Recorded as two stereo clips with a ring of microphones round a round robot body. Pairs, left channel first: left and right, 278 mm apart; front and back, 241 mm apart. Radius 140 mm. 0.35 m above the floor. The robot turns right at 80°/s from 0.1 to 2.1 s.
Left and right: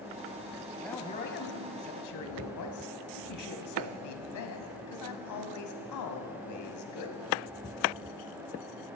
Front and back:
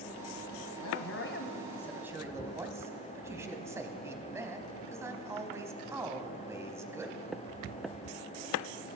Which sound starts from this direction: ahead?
A man speaking, at 0.8 s.